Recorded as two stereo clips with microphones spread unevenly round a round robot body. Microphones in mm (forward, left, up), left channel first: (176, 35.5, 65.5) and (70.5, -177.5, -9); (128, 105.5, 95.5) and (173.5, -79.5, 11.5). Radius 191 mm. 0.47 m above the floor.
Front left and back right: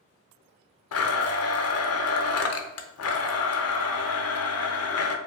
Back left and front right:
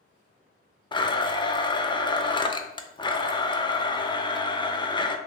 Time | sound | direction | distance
0.9 | a blender | 25° left | 0.6 m